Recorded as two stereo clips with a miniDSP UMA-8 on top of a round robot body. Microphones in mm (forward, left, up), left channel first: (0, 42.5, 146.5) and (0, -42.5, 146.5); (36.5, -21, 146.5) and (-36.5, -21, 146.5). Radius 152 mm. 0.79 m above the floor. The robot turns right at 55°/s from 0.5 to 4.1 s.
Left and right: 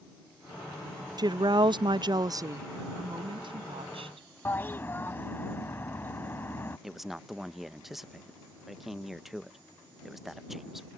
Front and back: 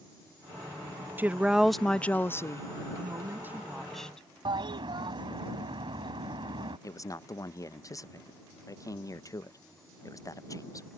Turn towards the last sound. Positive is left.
turn(degrees=-5)